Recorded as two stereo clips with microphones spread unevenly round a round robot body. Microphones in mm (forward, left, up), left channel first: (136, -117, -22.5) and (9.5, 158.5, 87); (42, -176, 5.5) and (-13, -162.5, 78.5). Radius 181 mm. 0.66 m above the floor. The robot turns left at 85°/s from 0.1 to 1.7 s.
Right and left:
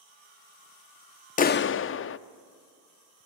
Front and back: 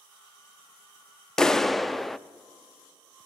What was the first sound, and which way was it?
A clap, 20° right.